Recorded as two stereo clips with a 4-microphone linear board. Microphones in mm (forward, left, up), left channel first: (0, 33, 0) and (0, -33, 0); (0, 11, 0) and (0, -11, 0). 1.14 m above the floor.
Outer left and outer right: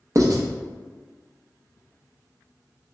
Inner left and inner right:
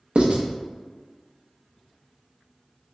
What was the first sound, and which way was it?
Writing, 55° right (ahead or behind).